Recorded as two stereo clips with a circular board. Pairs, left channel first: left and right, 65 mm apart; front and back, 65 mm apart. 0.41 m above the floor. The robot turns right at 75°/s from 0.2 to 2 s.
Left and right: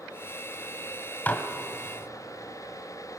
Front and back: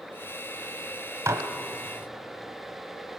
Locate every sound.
1.3 s dishes clattering: 150° left, 1.7 m; by 1.5 s 165° left, 1.7 m